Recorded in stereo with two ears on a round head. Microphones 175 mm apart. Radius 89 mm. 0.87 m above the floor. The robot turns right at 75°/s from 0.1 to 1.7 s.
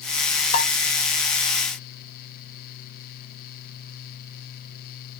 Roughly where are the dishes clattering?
Left.